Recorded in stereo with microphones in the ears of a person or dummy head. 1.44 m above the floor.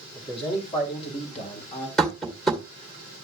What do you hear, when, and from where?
0.1 s a man speaking: 35° left (ahead or behind), 3 m
2.0 s tapping: 5° left (ahead or behind), 1.8 m